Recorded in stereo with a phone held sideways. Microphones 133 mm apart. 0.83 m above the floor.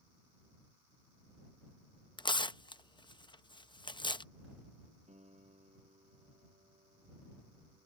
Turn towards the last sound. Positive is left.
turn(degrees=-65)  # may be behind; listen again after turning